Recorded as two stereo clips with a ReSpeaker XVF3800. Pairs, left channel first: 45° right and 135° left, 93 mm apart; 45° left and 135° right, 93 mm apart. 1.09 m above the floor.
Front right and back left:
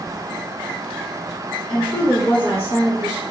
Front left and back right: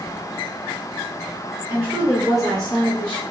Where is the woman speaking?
75° right, 1.2 m; by 3.2 s 20° right, 1.4 m.